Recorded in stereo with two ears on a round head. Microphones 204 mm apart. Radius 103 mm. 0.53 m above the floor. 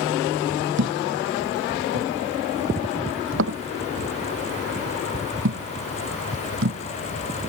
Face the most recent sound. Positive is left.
turn(degrees=-55)  # may be behind; listen again after turning